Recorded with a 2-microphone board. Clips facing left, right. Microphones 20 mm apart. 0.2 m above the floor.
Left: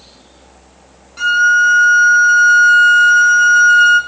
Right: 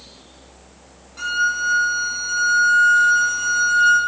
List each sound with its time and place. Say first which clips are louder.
1.2 s a violin: left 10 dB; 30° left (ahead or behind), 0.6 m